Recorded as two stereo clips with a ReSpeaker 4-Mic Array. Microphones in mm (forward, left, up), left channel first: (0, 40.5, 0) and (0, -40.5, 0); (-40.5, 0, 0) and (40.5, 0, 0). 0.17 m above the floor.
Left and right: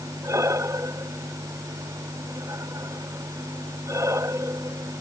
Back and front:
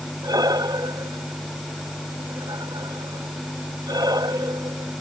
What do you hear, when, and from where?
0.2 s breathing: 40° right